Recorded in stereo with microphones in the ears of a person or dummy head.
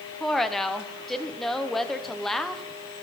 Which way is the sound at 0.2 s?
5° left (ahead or behind).